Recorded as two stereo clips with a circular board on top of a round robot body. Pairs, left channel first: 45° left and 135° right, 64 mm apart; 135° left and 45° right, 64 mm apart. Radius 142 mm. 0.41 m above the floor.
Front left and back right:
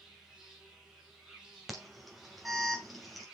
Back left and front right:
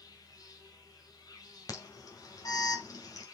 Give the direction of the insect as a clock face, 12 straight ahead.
7 o'clock.